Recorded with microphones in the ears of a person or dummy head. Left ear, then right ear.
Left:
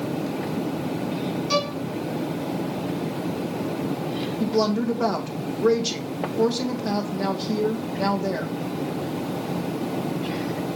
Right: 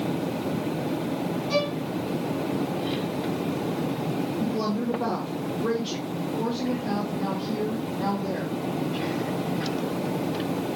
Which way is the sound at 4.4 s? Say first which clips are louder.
Left 5 dB; 65° left (ahead or behind).